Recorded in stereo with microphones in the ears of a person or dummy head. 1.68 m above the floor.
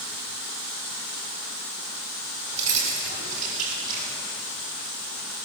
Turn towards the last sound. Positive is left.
turn(degrees=-40)  # may be behind; listen again after turning